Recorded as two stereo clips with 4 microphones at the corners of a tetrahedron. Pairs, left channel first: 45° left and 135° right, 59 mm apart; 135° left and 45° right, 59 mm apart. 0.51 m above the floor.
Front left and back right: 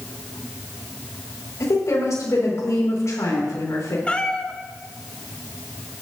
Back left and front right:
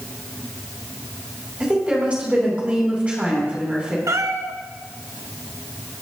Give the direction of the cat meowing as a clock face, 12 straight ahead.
1 o'clock.